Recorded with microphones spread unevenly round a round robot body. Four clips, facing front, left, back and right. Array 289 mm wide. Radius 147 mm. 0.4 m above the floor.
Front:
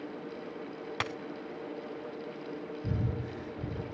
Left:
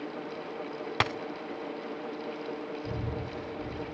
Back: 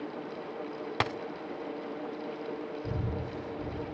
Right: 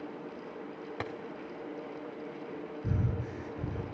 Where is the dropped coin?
115° left, 0.5 m.